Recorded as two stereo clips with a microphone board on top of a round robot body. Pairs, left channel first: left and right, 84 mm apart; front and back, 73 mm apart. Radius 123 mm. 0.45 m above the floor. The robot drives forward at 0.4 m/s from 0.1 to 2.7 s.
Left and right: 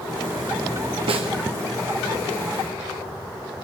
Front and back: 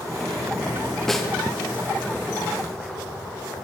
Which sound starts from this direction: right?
A snare drum, at 1.1 s.